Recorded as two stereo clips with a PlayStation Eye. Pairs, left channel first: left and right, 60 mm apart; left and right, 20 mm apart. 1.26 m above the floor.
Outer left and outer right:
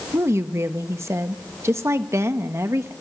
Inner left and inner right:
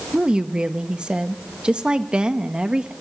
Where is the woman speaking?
60° right (ahead or behind), 1.1 m.